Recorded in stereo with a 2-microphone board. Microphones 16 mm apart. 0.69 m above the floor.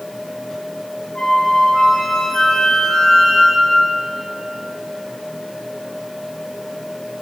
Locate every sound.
1.1 s a flute: 65° left (ahead or behind), 3 m